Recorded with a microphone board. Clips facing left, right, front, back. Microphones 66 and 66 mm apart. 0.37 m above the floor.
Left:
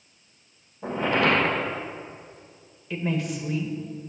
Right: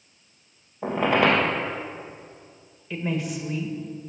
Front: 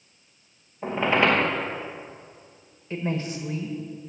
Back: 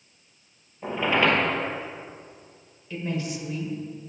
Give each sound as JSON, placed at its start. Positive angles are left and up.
{"t": 0.8, "sound": "a squeak", "azimuth_deg": -70, "distance_m": 2.5}
{"t": 2.9, "sound": "a woman speaking", "azimuth_deg": -5, "distance_m": 1.4}